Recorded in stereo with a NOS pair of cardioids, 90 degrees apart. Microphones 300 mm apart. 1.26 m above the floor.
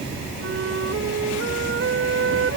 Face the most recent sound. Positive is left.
turn(degrees=-50)